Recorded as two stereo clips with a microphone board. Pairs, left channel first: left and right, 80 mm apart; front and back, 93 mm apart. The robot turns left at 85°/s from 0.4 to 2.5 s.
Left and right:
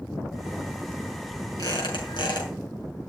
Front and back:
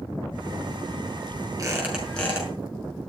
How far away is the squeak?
About 6 m.